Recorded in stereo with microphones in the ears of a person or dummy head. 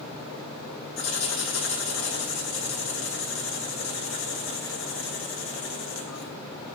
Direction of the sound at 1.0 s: 65° left (ahead or behind).